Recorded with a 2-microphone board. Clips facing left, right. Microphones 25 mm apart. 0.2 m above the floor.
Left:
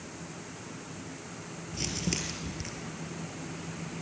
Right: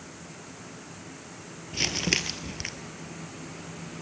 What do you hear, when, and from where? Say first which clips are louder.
1.7 s crumpling: right 7 dB; 45° right (ahead or behind), 1.2 m